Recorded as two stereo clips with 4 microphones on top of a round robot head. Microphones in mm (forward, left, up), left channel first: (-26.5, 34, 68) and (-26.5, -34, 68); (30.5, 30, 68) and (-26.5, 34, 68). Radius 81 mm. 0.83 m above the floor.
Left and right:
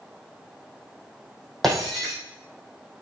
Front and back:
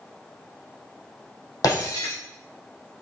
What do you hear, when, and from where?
1.6 s breaking glass: straight ahead, 5.5 m